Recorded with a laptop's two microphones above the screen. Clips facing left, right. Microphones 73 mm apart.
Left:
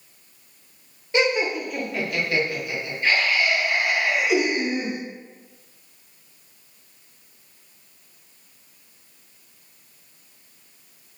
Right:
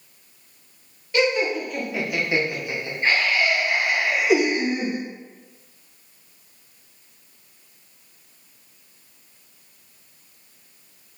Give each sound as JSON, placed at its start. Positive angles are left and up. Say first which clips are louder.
{"t": 1.1, "sound": "laughter", "louder": "right 1 dB", "side_deg": 25, "distance_m": 0.7}